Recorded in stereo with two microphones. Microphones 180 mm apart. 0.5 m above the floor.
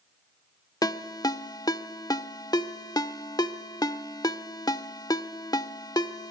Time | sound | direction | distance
0.8 | a ringtone | 20° left (ahead or behind) | 0.7 m